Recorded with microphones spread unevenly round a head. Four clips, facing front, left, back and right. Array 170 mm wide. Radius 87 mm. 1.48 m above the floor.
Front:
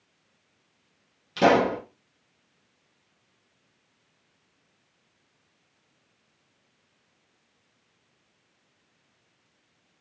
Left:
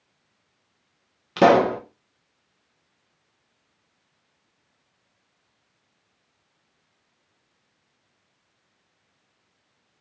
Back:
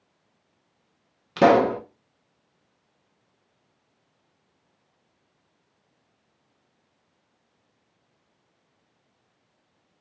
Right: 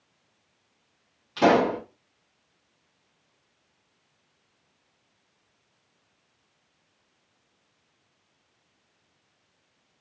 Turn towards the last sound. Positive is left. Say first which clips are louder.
# left 4 dB, back 3 dB
turn(degrees=120)